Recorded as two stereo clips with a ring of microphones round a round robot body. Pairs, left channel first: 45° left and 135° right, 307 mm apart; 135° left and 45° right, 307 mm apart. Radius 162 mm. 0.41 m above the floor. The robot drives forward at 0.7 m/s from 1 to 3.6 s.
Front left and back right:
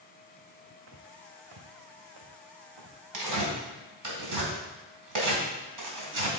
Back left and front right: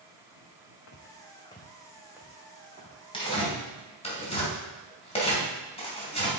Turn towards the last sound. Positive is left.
turn(degrees=-155)